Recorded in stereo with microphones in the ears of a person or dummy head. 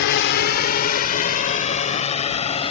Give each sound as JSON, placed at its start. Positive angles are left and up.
{"t": 0.0, "sound": "a drone", "side_deg": 65}